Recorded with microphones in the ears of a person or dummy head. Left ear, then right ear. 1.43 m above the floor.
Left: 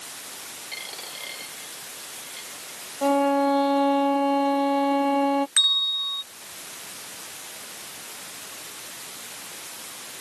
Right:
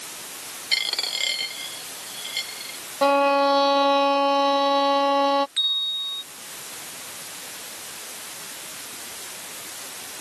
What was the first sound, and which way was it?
A dropped coin, 65° right (ahead or behind).